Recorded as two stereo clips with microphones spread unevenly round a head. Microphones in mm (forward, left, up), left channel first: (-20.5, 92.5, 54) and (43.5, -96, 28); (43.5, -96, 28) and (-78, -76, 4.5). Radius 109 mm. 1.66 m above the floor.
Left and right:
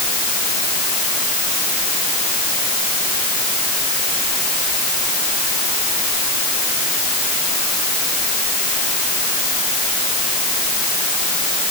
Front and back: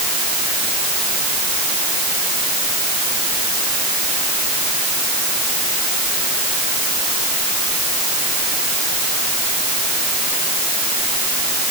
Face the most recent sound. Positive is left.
No sound to turn to.